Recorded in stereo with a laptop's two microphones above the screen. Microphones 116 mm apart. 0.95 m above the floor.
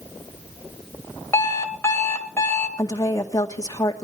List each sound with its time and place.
1.3 s an alarm clock: 20° left (ahead or behind), 2.5 m
2.8 s a woman speaking: 30° left (ahead or behind), 2 m